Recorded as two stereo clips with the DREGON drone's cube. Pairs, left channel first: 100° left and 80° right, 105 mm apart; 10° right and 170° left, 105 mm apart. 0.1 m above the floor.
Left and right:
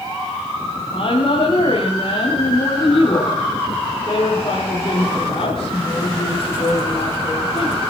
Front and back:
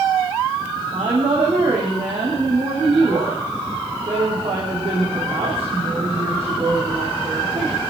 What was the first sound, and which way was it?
A woman speaking, 145° left.